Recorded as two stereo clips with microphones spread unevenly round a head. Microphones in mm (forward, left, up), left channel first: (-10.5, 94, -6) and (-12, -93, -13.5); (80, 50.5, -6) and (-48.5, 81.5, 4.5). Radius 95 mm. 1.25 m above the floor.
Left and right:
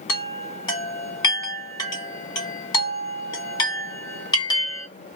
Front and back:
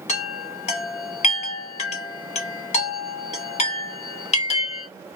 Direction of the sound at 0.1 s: 20° left.